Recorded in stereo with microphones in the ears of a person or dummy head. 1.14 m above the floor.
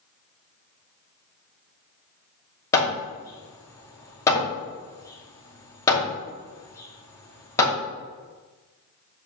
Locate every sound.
2.7 s hammering: 15° left (ahead or behind), 2.5 m